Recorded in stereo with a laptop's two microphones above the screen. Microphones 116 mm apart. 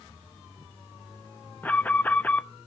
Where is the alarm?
15° left (ahead or behind), 0.9 m.